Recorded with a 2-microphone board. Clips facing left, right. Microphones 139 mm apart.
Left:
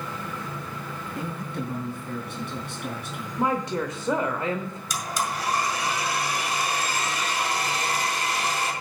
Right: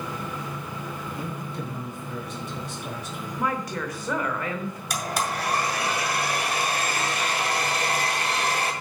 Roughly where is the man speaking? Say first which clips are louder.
Left 1 dB; left.